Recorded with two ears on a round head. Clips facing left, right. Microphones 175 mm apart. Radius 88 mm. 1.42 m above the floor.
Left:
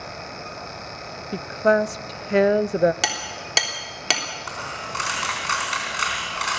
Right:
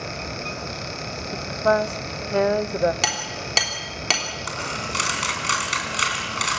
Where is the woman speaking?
25° left (ahead or behind), 0.6 m.